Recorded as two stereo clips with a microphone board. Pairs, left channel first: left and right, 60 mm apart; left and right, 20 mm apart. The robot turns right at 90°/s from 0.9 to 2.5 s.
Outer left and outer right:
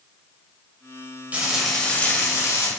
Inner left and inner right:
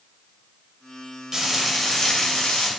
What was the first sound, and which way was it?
Frying, 30° right.